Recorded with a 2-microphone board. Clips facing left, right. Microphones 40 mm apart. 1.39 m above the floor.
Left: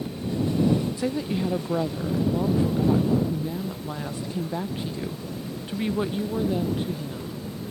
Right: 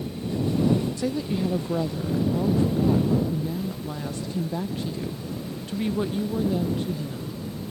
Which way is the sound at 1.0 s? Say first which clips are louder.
Even; 15° left (ahead or behind).